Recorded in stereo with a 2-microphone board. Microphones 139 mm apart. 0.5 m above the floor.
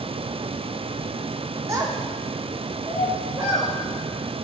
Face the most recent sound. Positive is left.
turn(degrees=-30)  # may be behind; listen again after turning